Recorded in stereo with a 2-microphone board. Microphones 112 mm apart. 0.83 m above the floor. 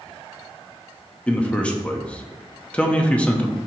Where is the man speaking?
10° left (ahead or behind), 0.8 m.